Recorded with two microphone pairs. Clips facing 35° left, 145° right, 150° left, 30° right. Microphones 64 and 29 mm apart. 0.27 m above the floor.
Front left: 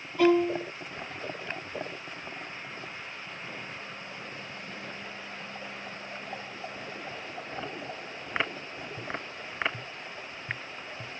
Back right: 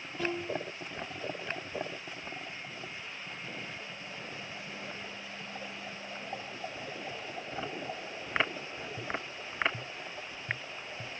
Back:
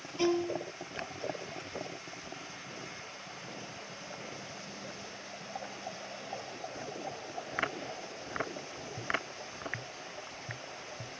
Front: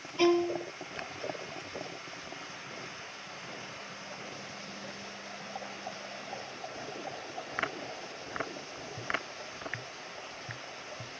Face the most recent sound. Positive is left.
turn(degrees=25)